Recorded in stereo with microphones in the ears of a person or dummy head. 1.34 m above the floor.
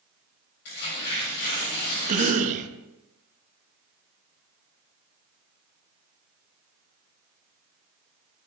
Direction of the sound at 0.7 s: 60° left (ahead or behind).